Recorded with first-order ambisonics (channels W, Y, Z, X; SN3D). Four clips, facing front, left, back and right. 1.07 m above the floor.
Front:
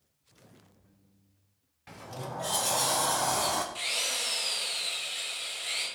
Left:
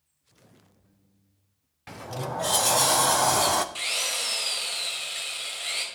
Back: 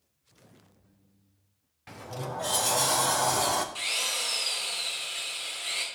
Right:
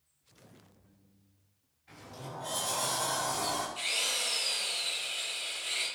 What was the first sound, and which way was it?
A sliding door, 100° left.